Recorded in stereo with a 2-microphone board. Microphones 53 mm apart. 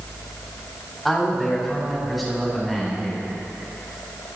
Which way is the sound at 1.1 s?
Centre (ahead or behind).